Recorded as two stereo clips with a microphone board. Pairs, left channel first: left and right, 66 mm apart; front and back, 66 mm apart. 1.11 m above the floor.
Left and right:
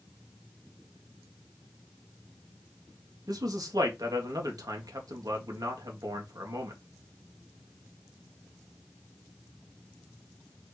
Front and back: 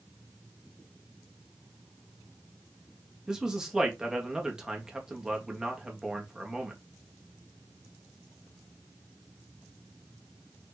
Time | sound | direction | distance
3.3 | a man speaking | 100° right | 1.8 m